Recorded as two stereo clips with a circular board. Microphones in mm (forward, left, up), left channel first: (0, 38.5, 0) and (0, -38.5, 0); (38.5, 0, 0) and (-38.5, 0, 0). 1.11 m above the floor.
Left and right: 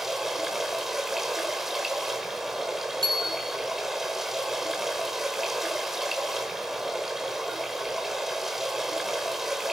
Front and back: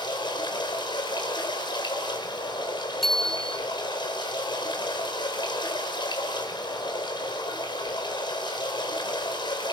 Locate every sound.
0.0 s running water: 5° right, 4.5 m
3.0 s a bicycle bell: 85° right, 3 m